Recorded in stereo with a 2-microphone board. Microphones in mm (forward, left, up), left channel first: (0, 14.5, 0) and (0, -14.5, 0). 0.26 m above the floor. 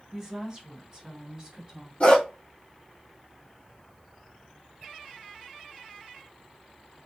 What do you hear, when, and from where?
0.1 s a woman speaking: 20° right (ahead or behind), 1.0 m; by 1.9 s 25° right (ahead or behind), 1.8 m
2.0 s a dog barking: 40° left (ahead or behind), 1.3 m